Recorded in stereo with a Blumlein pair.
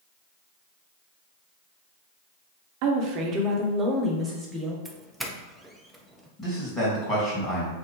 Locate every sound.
2.8 s a woman speaking: 45° right, 1.1 m; by 4.8 s straight ahead, 1.7 m
4.8 s a doorbell: 5° right, 0.7 m
6.4 s a man speaking: 15° left, 2.5 m